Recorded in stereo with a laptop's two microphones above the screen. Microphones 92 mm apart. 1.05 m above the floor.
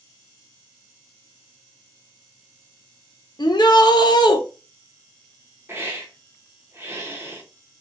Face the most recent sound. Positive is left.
turn(degrees=-30)  # may be behind; listen again after turning